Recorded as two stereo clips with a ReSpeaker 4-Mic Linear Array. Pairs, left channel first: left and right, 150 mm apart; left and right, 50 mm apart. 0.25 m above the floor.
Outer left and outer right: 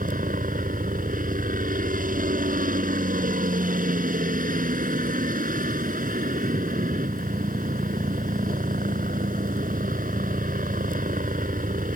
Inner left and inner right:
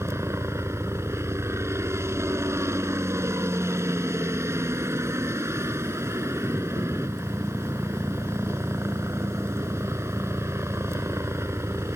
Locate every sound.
0.0 s a helicopter: 65° right (ahead or behind)